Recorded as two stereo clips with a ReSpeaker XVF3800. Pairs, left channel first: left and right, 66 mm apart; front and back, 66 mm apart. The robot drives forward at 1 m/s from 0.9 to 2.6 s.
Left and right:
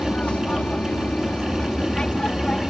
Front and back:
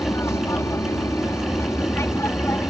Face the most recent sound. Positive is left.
turn(degrees=15)